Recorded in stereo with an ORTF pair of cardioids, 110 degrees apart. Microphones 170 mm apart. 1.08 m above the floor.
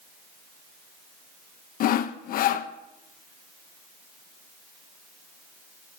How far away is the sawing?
About 0.5 m.